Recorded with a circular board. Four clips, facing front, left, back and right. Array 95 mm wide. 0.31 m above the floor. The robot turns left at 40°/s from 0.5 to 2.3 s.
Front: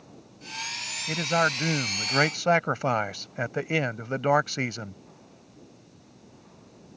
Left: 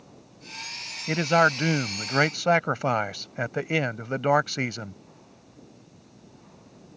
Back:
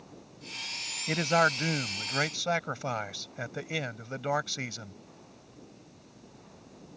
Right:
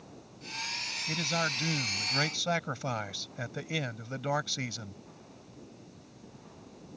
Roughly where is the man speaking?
Left.